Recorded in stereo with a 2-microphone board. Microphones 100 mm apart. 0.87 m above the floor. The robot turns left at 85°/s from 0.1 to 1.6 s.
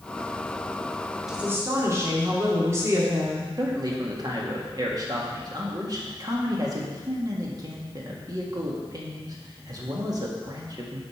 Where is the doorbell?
I don't hear a doorbell.